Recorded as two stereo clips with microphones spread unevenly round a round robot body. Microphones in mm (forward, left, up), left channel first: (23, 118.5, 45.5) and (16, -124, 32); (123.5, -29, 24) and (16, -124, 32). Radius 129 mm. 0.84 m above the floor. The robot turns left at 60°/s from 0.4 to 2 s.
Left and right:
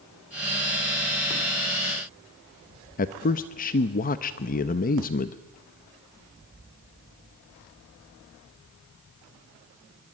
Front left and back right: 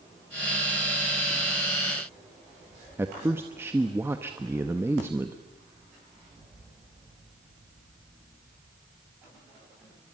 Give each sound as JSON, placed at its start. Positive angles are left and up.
{"t": 3.0, "sound": "a man speaking", "azimuth_deg": 145, "distance_m": 0.8}